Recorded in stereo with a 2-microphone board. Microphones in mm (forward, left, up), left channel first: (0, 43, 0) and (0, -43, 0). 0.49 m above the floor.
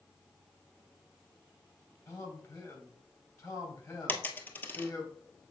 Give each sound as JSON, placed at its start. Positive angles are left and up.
{"t": 2.1, "sound": "a man speaking", "side_deg": 35, "distance_m": 2.5}
{"t": 4.1, "sound": "a dropped coin", "side_deg": 20, "distance_m": 0.9}